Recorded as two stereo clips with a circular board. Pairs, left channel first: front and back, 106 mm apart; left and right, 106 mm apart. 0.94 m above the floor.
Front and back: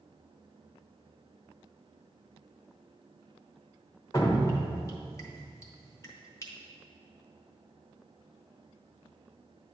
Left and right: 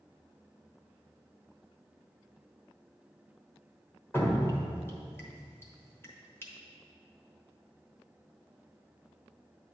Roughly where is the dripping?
Ahead left.